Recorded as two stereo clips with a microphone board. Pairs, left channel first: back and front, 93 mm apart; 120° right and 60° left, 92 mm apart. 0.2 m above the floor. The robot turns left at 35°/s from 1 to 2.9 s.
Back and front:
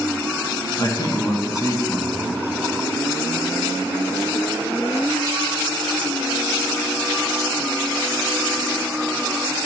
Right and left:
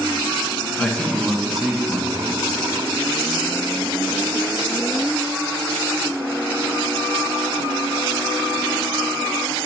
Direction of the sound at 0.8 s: 170° left.